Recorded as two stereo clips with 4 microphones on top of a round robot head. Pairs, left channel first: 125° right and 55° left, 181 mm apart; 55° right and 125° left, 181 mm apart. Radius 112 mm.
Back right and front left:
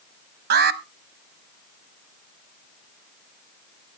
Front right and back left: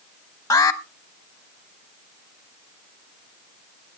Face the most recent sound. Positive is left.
turn(degrees=20)